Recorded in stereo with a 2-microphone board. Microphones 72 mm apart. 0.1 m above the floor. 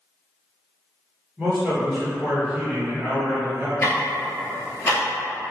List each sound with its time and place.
1.4 s a man speaking: 20° right (ahead or behind), 1.9 m
3.8 s ticking: 35° left (ahead or behind), 0.8 m